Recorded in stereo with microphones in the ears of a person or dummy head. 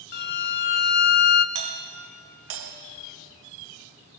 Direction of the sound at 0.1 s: 45° left (ahead or behind).